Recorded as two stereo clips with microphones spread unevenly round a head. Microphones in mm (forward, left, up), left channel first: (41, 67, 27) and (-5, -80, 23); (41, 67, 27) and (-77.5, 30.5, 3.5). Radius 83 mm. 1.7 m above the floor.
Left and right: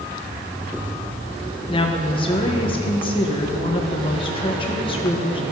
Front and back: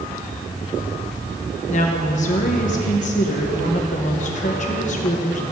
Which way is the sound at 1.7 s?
20° left.